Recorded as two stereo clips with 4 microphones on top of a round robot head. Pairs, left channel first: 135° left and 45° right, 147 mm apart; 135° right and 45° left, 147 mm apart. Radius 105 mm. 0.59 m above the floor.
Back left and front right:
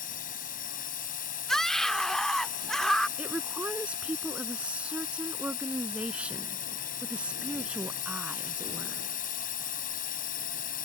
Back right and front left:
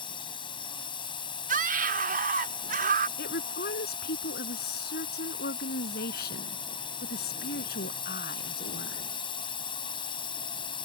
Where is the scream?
50° left.